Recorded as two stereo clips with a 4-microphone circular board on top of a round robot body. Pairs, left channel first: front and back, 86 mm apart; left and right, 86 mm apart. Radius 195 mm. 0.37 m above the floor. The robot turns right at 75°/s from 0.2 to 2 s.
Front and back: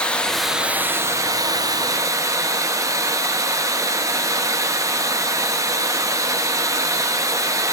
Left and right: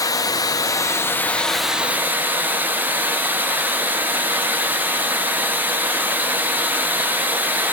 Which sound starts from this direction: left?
Running water, at 0.0 s.